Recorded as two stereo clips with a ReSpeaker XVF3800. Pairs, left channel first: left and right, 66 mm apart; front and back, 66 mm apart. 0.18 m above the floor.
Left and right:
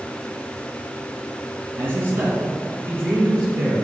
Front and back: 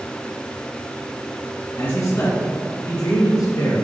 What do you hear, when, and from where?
1.8 s a man speaking: 55° right, 2 m; by 3.7 s 35° right, 3 m